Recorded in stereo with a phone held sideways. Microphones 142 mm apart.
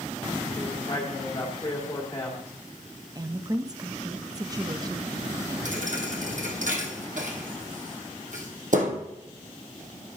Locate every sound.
0.5 s a man speaking: 20° left (ahead or behind), 2.0 m
3.1 s a woman speaking: 25° right (ahead or behind), 0.5 m
5.7 s a thud: 65° right (ahead or behind), 1.9 m